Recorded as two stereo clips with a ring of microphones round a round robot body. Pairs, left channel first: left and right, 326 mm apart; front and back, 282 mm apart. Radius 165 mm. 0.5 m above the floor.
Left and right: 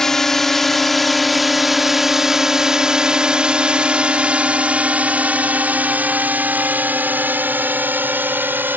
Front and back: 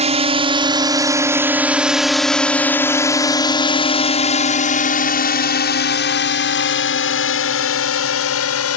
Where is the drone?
175° left; by 8.8 s 5° right.